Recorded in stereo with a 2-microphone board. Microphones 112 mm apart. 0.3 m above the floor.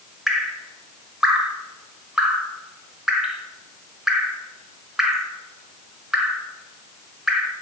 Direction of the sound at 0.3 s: 5° right (ahead or behind).